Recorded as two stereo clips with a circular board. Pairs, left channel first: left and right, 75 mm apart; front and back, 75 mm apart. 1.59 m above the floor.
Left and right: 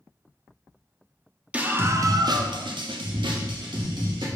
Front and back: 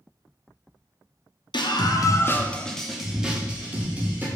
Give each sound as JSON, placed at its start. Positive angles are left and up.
{"t": 1.5, "sound": "a scream", "azimuth_deg": -15, "distance_m": 0.5}